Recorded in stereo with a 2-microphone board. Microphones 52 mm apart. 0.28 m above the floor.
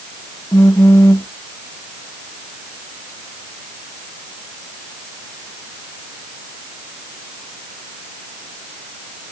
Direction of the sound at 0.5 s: 75° left (ahead or behind).